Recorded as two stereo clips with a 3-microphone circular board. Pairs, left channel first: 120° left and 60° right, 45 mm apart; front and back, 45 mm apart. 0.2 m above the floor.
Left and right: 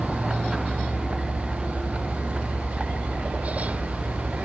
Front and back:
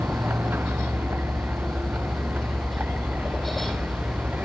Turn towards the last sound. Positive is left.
turn(degrees=-130)